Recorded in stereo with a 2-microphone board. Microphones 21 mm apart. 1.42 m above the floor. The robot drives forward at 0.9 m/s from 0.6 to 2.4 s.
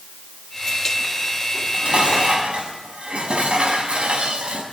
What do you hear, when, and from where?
1.5 s dishes clattering: 85° right, 6.5 m; by 4.6 s 80° right, 6.5 m